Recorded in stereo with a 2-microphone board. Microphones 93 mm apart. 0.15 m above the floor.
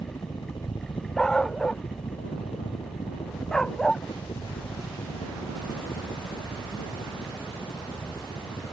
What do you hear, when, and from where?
0.0 s a helicopter: 50° left (ahead or behind); by 8.7 s 65° left (ahead or behind)
1.2 s a dog barking: 10° left (ahead or behind)